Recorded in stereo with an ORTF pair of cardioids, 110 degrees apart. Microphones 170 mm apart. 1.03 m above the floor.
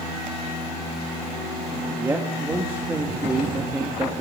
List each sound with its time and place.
2.0 s a man speaking: 15° right, 1.3 m